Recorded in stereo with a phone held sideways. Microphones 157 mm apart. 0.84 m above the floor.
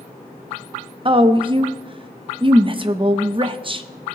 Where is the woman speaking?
35° right (ahead or behind), 0.6 m.